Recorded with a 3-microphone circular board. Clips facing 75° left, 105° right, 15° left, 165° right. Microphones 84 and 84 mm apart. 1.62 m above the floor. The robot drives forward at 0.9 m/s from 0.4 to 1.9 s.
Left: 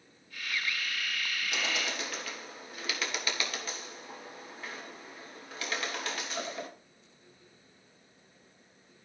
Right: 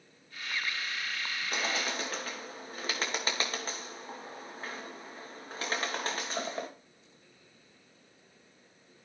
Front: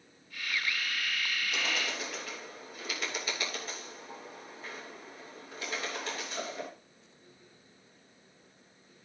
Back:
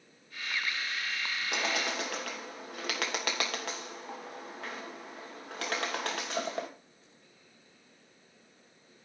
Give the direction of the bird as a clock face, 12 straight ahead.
5 o'clock.